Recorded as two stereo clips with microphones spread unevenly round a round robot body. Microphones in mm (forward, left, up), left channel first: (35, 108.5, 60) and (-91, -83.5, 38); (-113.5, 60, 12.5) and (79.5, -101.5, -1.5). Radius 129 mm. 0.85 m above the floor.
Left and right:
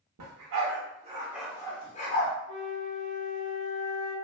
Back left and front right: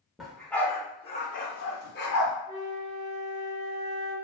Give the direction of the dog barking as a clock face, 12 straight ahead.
4 o'clock.